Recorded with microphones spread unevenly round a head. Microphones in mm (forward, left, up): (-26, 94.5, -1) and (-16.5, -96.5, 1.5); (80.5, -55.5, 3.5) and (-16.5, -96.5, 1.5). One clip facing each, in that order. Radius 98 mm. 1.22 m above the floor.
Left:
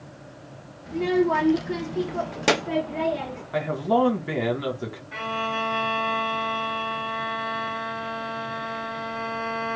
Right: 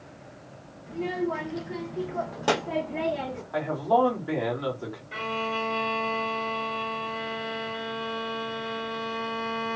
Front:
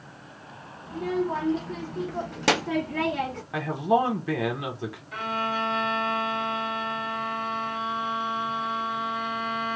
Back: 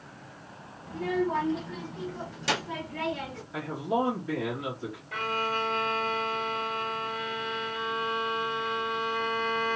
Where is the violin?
140° right, 1.8 m.